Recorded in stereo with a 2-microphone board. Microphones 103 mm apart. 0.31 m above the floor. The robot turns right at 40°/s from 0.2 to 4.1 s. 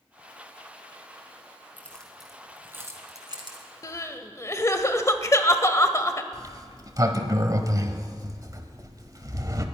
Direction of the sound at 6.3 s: 35° right (ahead or behind).